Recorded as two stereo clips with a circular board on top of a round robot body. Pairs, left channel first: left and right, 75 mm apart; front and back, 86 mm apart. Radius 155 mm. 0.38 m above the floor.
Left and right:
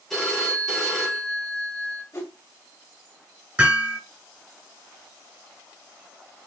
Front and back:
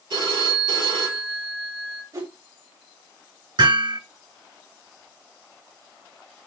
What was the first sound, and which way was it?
A phone ringing, straight behind.